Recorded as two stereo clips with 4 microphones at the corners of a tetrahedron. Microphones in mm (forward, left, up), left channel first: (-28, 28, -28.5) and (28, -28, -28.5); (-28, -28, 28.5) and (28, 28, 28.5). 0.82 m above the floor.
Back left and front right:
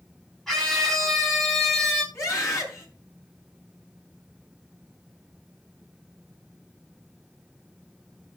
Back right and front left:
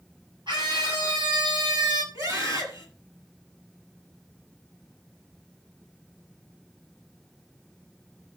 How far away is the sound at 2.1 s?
About 7 m.